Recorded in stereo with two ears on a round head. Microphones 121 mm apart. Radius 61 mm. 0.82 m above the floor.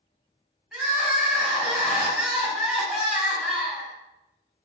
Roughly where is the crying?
Centre.